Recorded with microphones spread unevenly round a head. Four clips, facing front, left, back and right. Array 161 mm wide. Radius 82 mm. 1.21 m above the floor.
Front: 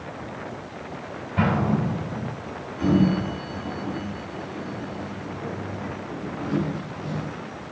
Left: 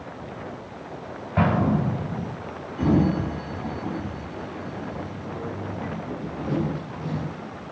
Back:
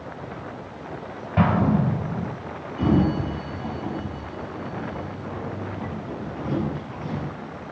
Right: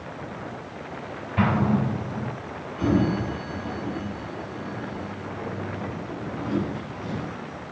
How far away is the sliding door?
About 5.5 m.